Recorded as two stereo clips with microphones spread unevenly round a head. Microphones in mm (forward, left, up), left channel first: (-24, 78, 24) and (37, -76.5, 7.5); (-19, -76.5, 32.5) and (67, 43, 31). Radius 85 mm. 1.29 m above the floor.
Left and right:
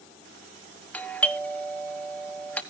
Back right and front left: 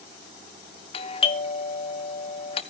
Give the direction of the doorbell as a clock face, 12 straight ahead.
5 o'clock.